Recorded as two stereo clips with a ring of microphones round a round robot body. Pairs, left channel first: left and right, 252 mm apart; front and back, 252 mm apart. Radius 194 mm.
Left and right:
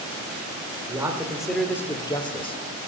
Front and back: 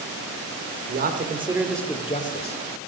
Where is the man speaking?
165° right, 1.6 m; by 2.6 s 30° left, 1.7 m.